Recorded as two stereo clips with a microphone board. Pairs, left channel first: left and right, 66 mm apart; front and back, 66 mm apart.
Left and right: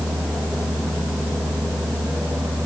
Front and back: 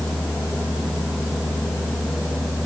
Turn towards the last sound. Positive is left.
No sound to turn to.